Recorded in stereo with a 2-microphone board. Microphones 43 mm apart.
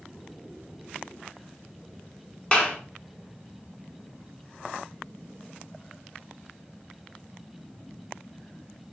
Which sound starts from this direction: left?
A clap, at 2.5 s.